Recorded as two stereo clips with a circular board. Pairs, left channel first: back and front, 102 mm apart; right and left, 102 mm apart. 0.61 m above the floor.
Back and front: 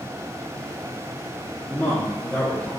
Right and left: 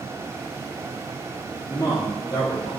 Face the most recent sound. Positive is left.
turn(degrees=-125)